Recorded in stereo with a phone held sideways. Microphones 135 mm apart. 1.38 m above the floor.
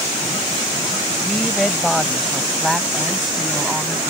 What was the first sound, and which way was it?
A woman speaking, 5° left (ahead or behind).